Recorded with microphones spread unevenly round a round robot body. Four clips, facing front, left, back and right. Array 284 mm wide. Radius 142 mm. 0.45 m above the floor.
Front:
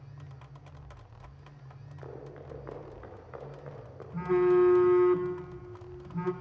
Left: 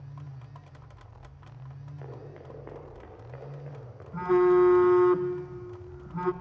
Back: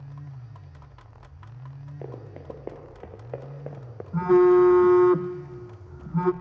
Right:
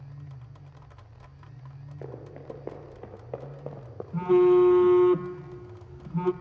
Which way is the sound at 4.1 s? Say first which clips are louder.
Right 2 dB, back 7 dB; 160° right.